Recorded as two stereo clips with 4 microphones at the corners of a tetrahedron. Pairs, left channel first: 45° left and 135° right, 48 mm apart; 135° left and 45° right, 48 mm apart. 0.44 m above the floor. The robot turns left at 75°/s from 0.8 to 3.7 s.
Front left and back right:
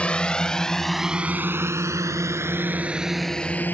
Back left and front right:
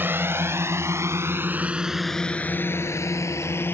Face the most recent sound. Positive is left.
turn(degrees=95)